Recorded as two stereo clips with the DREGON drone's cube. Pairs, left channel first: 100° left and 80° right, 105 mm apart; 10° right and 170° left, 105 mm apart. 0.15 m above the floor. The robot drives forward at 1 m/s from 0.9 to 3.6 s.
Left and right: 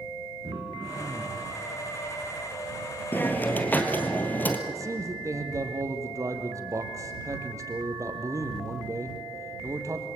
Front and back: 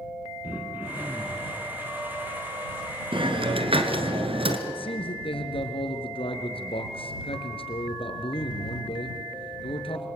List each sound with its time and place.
0.4 s throat clearing: 120° right, 4 m; by 1.5 s 125° right, 4.5 m
3.1 s a hiss: 170° left, 1.7 m
4.7 s a man speaking: 25° right, 2.5 m